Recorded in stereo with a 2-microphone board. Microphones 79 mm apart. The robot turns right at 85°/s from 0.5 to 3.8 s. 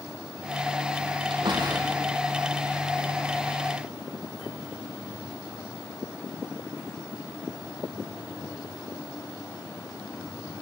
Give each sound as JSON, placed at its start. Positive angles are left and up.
{"t": 1.3, "sound": "a door slam", "side_deg": -85, "distance_m": 5.5}